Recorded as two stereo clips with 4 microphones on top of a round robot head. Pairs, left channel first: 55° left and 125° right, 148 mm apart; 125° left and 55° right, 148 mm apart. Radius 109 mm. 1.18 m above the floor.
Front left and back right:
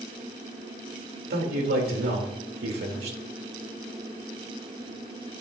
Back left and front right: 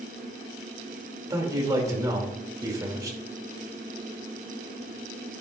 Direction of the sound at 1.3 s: 120° right.